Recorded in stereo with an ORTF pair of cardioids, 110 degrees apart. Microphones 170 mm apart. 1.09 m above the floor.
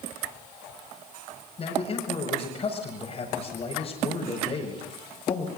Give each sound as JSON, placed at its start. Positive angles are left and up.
{"t": 1.6, "sound": "a man speaking", "azimuth_deg": 35, "distance_m": 6.0}